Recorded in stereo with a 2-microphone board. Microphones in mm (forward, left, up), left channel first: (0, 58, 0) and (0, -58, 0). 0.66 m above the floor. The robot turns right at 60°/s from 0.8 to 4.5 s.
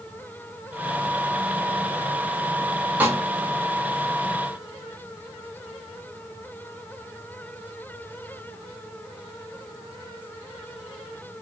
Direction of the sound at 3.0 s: 15° right (ahead or behind).